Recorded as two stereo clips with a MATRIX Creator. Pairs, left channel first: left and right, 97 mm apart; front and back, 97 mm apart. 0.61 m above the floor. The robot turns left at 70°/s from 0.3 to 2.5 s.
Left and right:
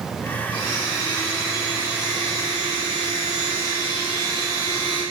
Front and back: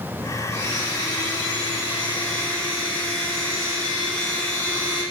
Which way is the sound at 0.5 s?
75° left.